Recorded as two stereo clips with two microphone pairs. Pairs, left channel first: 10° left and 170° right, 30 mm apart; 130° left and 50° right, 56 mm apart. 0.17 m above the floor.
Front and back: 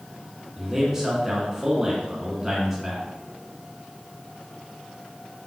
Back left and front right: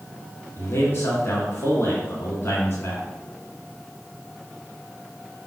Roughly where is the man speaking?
Behind left.